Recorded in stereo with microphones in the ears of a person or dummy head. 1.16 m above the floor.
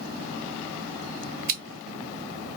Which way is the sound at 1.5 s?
55° right (ahead or behind).